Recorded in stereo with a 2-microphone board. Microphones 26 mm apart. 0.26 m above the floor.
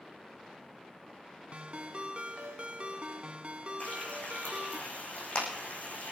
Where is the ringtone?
50° right (ahead or behind), 0.8 m.